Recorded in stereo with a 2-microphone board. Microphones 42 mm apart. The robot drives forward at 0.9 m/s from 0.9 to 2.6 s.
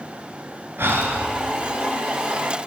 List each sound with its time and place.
0.8 s breathing: 60° right (ahead or behind), 2.5 m; by 1.3 s 55° right (ahead or behind), 2.5 m